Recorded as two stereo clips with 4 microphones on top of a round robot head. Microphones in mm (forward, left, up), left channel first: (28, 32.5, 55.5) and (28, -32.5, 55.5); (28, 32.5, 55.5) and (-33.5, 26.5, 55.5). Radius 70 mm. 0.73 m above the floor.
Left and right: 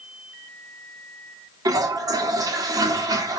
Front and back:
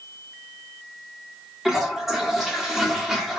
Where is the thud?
No thud in this recording.